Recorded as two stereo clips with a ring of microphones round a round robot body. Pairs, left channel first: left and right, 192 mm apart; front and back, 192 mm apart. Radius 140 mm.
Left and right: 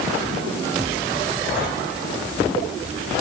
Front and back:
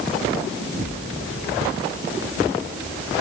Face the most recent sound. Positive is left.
No sound to turn to.